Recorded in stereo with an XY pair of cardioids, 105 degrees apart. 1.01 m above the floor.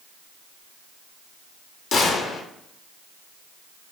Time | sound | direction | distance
1.9 | a gunshot | 70° left | 0.9 m